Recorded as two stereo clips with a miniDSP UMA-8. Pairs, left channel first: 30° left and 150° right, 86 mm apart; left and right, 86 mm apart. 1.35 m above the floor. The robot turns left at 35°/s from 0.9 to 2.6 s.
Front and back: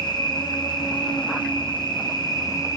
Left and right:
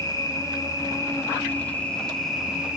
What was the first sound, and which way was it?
An insect, 50° left.